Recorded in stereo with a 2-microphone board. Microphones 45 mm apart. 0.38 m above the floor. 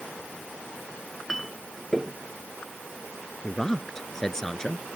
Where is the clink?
Centre (ahead or behind).